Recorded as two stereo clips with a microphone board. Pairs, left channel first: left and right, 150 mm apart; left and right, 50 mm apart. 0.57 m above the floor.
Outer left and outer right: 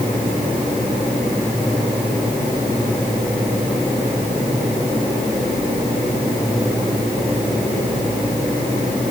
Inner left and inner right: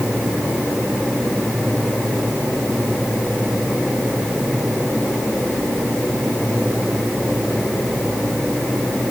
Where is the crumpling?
I don't hear crumpling.